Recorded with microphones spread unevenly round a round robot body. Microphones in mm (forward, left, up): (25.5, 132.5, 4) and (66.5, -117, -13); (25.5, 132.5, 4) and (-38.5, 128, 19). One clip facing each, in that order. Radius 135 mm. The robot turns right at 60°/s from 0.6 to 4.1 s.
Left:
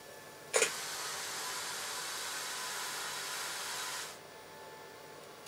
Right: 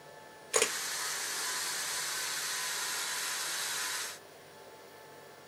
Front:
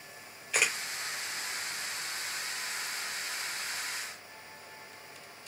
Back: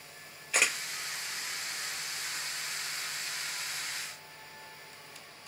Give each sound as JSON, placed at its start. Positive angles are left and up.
{"t": 0.5, "sound": "a camera shutter", "azimuth_deg": -55, "distance_m": 1.2}